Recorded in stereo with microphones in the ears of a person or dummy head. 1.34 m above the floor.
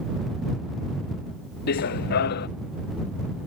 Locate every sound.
1.7 s running footsteps: 60° left (ahead or behind)